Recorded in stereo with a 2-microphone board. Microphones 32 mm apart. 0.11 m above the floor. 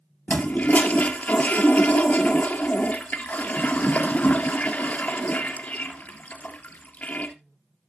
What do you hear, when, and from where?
0.3 s a toilet flushing: 55° left (ahead or behind), 1.6 m